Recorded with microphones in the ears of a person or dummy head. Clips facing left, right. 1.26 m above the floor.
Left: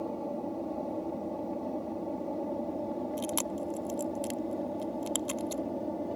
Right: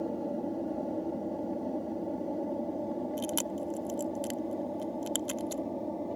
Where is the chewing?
10° right (ahead or behind).